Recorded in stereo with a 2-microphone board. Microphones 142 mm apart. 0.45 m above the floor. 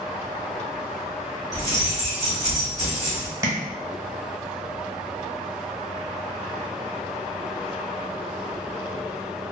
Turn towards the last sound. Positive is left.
turn(degrees=-20)  # may be behind; listen again after turning